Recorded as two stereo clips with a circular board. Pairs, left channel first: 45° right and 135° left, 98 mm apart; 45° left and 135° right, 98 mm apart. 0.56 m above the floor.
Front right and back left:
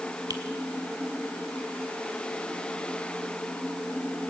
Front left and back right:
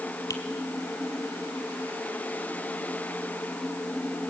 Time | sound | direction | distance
0.3 | a finger snap | 95° left | 1.7 m